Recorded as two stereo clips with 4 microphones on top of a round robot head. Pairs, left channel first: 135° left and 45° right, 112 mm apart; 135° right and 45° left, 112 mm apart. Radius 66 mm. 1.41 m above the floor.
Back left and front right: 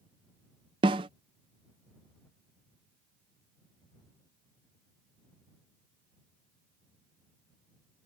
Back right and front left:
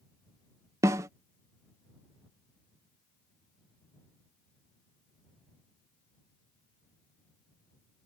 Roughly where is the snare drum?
Ahead.